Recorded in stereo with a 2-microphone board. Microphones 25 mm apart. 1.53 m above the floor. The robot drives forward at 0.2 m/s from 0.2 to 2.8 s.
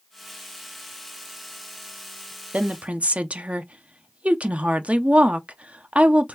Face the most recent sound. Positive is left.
turn(degrees=-55)  # may be behind; listen again after turning